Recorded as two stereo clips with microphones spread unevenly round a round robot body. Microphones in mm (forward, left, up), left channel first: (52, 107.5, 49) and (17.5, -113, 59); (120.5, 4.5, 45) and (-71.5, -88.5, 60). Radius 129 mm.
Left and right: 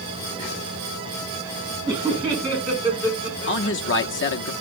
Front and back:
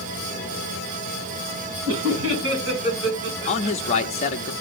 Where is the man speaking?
80° left, 1.0 m.